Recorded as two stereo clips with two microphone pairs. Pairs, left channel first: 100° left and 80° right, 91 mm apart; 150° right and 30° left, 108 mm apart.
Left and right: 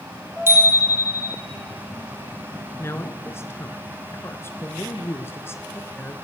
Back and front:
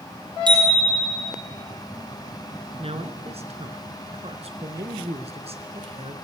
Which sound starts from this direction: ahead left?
A man speaking, at 2.8 s.